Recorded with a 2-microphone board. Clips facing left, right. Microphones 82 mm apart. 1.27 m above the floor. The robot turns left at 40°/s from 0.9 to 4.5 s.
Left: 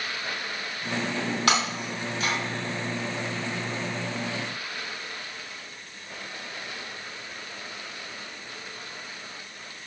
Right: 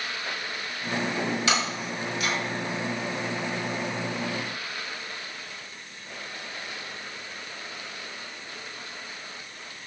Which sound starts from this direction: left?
Breaking glass, at 1.5 s.